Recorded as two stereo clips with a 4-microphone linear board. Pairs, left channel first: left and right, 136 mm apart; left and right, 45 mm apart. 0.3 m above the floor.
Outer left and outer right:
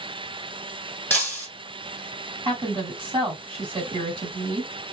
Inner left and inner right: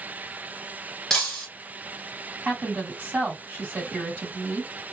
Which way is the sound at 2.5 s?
40° right (ahead or behind).